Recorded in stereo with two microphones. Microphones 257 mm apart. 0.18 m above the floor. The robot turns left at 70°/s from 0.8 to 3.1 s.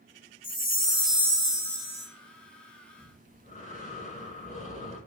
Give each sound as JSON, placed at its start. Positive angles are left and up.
{"t": 0.4, "sound": "a chime", "azimuth_deg": 20, "distance_m": 1.3}
{"t": 3.0, "sound": "breathing", "side_deg": 25, "distance_m": 1.0}